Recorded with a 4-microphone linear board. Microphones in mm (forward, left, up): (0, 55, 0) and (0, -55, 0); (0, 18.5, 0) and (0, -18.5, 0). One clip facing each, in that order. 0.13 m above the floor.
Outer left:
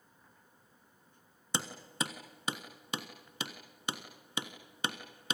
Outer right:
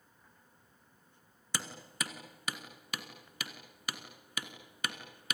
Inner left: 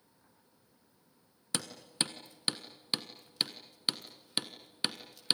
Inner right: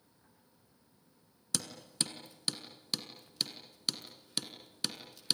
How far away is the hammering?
About 1.5 m.